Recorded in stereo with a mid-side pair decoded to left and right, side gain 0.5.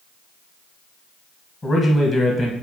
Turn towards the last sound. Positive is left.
turn(degrees=30)